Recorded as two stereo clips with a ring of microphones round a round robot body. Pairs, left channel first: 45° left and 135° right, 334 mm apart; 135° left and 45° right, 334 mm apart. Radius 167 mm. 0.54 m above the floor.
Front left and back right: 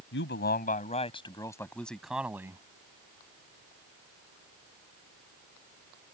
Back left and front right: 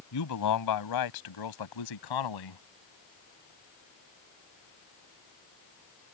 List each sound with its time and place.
0.1 s a man speaking: 100° left; by 2.6 s 145° left